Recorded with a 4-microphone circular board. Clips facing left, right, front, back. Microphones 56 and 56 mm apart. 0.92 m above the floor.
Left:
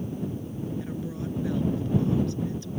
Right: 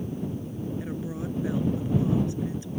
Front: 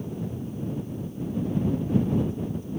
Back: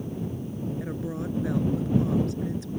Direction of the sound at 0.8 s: 165° right.